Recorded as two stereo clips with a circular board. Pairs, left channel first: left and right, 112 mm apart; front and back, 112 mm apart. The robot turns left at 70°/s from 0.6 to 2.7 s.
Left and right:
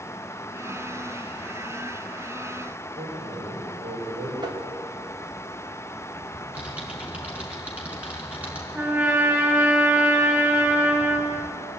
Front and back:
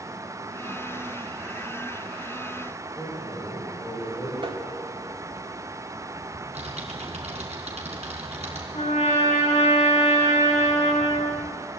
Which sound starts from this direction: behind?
Typing on a keyboard, at 6.3 s.